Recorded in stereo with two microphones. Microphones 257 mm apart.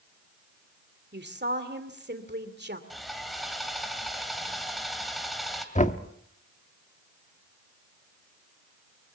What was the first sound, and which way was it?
A woman speaking, 40° right (ahead or behind).